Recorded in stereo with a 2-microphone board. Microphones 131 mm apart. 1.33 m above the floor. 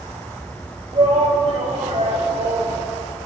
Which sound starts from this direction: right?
A shout, at 0.9 s.